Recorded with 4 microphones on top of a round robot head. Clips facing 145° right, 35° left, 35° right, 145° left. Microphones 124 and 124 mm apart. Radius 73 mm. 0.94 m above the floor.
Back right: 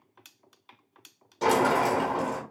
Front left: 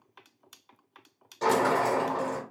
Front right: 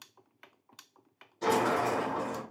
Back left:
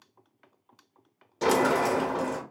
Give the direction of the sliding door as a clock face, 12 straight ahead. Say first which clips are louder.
Back right 1 dB, back left 4 dB; 7 o'clock.